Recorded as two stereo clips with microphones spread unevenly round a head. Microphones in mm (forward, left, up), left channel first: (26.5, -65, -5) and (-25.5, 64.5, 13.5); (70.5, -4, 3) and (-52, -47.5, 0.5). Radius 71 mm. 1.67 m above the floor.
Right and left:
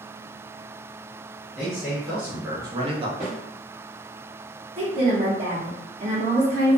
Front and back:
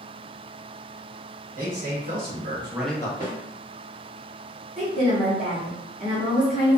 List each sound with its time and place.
1.6 s a man speaking: 160° right, 1.5 m; by 3.1 s 75° left, 0.6 m
3.2 s a snare drum: 170° right, 1.3 m
4.8 s a woman speaking: 145° left, 1.0 m